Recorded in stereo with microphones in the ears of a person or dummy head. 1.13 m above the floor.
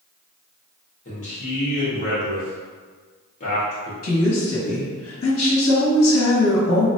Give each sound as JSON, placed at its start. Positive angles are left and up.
{"t": 1.1, "sound": "a man speaking", "side_deg": 40, "distance_m": 1.9}
{"t": 4.0, "sound": "a woman speaking", "side_deg": 65, "distance_m": 1.4}